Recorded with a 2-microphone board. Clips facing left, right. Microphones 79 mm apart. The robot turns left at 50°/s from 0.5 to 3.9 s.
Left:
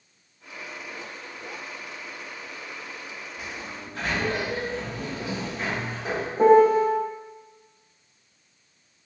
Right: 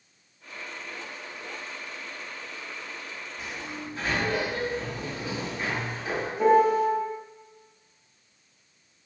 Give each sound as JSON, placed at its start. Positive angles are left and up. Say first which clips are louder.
{"t": 3.4, "sound": "a sliding door", "louder": "right 1 dB", "side_deg": 55, "distance_m": 1.8}
{"t": 6.4, "sound": "a piano", "louder": "left 4 dB", "side_deg": 35, "distance_m": 0.6}